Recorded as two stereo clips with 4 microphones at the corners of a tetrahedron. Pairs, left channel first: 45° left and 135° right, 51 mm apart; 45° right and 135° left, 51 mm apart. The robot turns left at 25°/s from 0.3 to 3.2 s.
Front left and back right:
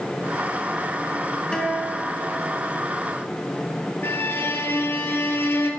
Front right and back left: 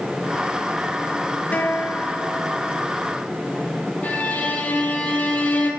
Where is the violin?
10° left, 1.5 m.